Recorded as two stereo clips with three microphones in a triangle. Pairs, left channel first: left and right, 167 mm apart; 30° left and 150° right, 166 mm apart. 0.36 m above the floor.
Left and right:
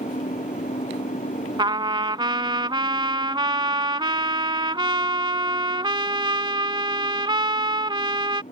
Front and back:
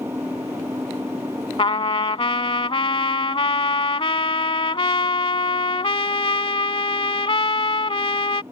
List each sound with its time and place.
0.0 s an engine running: 135° left
1.6 s a trumpet: 30° right